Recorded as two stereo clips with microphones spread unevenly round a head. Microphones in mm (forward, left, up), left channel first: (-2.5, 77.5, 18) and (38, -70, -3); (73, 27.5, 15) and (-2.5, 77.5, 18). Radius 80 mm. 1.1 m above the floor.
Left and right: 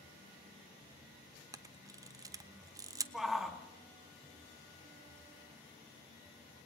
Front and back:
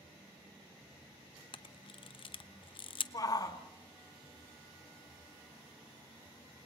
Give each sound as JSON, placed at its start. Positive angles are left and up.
{"t": 1.5, "sound": "a camera shutter", "azimuth_deg": -5, "distance_m": 0.8}
{"t": 3.1, "sound": "a shout", "azimuth_deg": 15, "distance_m": 1.9}